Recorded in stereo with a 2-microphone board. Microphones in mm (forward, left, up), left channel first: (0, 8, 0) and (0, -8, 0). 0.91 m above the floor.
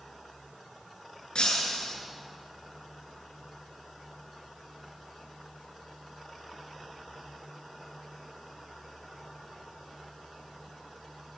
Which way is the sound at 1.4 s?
85° left.